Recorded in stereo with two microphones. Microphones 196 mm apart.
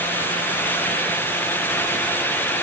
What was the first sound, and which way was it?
Only background noise.